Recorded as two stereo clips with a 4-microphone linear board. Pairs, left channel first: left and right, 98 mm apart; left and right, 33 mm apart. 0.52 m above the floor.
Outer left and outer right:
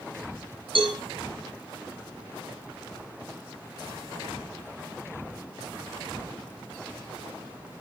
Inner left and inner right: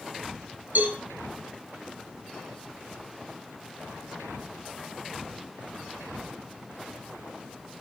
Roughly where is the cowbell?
Right.